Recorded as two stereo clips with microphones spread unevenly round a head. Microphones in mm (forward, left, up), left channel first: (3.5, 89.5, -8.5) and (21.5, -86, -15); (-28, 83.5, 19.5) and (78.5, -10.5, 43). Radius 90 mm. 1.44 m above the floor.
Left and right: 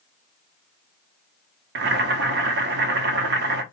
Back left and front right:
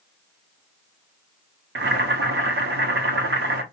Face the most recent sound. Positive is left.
turn(degrees=-55)